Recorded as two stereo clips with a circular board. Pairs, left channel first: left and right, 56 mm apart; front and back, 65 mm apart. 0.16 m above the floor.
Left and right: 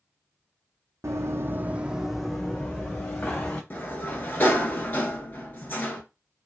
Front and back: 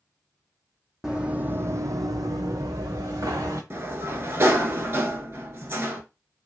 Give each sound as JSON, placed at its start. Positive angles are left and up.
{"t": 1.0, "sound": "running footsteps", "azimuth_deg": -100, "distance_m": 0.6}
{"t": 3.7, "sound": "a sliding door", "azimuth_deg": 135, "distance_m": 0.7}